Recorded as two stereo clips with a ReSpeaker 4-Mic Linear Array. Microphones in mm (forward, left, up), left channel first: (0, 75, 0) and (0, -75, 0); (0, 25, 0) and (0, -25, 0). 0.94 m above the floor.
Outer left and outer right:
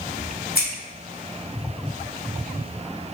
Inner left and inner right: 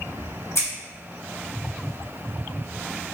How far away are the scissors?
About 1.8 m.